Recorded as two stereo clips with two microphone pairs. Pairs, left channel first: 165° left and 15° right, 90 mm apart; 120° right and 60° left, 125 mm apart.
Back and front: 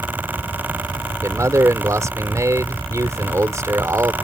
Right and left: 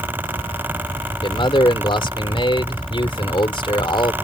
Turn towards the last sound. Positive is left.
turn(degrees=-70)